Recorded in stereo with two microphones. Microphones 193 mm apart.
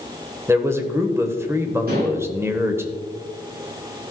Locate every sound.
0.5 s a man speaking: 15° right (ahead or behind), 0.9 m
1.9 s dishes clattering: 55° right (ahead or behind), 2.5 m